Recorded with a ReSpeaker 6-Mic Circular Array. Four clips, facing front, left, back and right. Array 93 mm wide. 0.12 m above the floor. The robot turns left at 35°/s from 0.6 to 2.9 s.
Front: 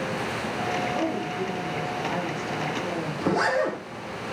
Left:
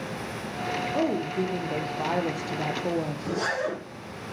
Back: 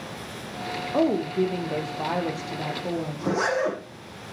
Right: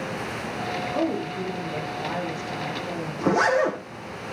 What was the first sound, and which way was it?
A woman speaking, 175° left.